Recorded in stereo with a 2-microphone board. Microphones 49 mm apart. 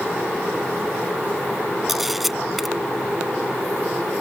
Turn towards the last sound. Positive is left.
turn(degrees=-5)  # may be behind; listen again after turning